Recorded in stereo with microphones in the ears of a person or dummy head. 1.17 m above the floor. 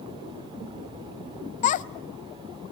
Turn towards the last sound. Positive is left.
turn(degrees=45)  # may be behind; listen again after turning